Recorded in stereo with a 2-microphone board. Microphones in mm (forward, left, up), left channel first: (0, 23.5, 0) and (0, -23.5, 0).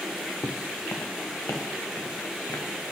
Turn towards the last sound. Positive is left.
turn(degrees=65)  # may be behind; listen again after turning